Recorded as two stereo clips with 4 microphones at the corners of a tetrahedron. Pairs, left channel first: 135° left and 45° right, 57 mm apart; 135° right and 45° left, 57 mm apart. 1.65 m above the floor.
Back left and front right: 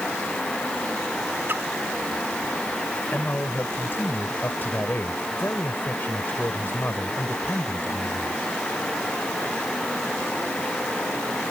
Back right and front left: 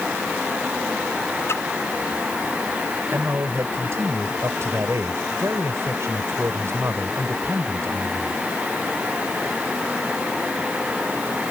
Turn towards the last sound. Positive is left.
turn(degrees=85)